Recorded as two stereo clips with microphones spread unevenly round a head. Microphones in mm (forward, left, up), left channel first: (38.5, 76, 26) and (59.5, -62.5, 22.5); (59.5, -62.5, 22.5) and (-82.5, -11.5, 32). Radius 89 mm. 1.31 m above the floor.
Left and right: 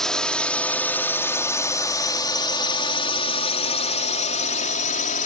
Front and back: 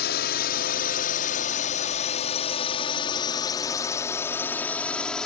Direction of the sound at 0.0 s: 15° left.